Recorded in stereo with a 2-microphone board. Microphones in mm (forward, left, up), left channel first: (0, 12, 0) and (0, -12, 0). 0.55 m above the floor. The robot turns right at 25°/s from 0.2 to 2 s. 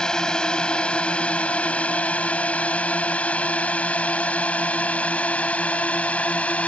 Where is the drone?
30° left (ahead or behind); by 6.7 s 70° left (ahead or behind).